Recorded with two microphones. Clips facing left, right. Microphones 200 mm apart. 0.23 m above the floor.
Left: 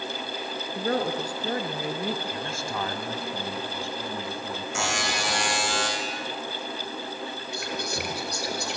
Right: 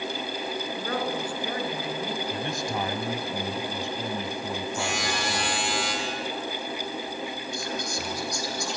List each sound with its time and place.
0.8 s a woman speaking: 40° left (ahead or behind), 3 m
2.3 s a man speaking: 20° right (ahead or behind), 1.8 m
4.8 s a buzzer: 85° left, 6.5 m
7.5 s whispering: 70° left (ahead or behind), 4.5 m